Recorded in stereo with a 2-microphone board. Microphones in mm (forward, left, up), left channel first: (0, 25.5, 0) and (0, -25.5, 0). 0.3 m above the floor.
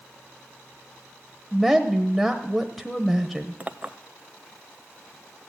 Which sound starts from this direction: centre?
A woman speaking, at 1.5 s.